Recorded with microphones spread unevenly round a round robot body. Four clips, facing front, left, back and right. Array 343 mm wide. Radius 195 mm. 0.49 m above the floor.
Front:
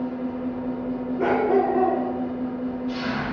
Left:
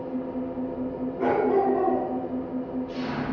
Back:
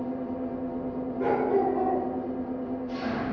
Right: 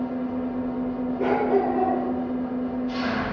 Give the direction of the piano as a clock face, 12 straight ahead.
I don't hear a piano.